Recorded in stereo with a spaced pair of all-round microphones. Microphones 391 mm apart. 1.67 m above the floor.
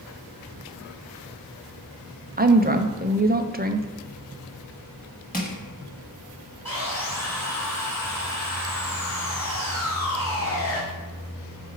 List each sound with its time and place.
2.4 s a woman speaking: 25° right (ahead or behind), 0.5 m
5.3 s crushing: 25° left (ahead or behind), 1.3 m
6.7 s sawing: 65° left (ahead or behind), 2.5 m